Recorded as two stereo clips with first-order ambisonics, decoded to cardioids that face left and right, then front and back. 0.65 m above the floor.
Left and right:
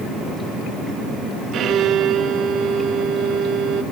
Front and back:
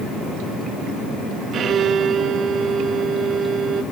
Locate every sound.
1.5 s a violin: 130° right, 1.4 m